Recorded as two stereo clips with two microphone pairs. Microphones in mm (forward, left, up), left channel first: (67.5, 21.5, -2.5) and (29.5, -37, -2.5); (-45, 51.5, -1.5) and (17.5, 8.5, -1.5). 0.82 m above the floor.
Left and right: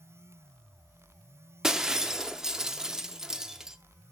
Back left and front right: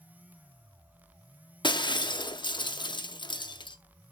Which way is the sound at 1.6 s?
155° left.